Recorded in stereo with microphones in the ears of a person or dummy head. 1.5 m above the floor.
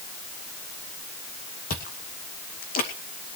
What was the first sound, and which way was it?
Chewing, 45° left (ahead or behind).